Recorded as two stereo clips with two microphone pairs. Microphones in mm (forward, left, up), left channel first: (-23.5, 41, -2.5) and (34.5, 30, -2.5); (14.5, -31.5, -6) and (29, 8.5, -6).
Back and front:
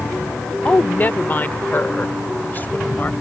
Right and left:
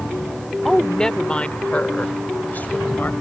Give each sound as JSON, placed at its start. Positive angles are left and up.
{"t": 0.7, "sound": "a woman speaking", "azimuth_deg": 175}